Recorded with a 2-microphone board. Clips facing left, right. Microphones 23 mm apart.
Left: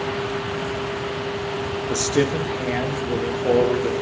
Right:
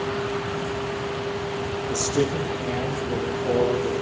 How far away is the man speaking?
About 5 m.